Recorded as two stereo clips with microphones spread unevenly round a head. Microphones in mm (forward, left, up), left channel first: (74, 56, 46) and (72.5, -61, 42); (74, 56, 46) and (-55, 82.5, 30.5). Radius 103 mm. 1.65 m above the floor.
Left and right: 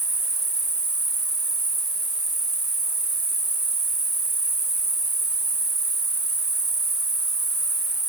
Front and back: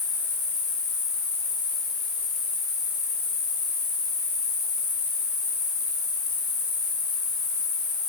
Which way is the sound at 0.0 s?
20° right.